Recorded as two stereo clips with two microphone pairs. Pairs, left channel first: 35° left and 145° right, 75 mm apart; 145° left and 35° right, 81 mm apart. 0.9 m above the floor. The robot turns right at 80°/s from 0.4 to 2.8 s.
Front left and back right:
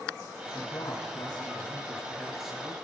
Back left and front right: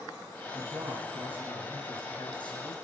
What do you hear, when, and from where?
0.5 s a man speaking: 25° right, 6 m; by 2.7 s 150° left, 6 m